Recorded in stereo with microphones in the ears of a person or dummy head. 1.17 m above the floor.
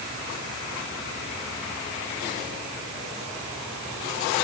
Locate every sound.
Only background noise.